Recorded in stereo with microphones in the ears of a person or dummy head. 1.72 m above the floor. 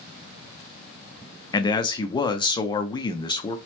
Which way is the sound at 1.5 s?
20° left (ahead or behind).